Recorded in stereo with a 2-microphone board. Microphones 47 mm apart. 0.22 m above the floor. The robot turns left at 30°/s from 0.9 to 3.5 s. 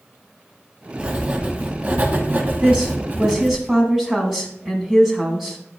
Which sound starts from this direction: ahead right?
Writing, at 1.0 s.